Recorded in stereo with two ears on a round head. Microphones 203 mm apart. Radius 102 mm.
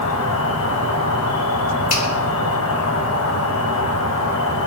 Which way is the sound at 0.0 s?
75° left (ahead or behind).